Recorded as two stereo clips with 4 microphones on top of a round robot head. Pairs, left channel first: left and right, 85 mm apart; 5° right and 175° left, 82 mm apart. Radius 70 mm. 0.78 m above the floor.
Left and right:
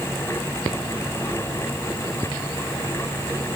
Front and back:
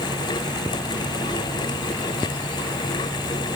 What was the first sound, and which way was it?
Only background noise.